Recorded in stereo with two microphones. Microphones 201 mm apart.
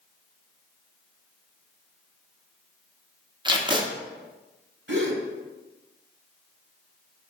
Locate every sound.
3.5 s tape being pulled: 20° right (ahead or behind), 0.5 m
4.9 s a gasp: 70° right (ahead or behind), 0.8 m